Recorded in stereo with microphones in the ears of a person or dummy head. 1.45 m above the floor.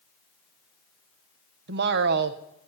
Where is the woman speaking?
65° right (ahead or behind), 0.9 m.